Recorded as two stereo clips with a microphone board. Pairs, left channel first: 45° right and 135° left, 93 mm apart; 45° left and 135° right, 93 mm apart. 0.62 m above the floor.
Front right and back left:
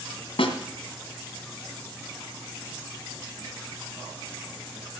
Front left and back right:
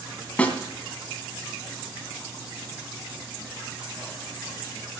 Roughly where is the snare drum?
Ahead right.